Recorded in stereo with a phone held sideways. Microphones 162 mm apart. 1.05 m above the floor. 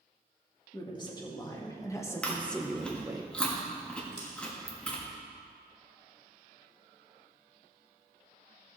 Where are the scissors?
35° left (ahead or behind), 4.5 m.